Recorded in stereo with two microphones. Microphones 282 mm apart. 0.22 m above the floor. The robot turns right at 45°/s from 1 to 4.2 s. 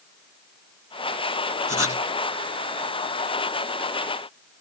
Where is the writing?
55° left (ahead or behind).